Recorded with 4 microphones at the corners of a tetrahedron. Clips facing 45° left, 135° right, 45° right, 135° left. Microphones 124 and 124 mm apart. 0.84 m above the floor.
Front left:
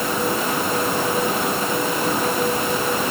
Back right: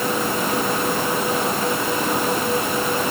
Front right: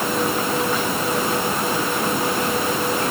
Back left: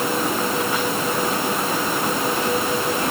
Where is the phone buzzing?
I don't hear a phone buzzing.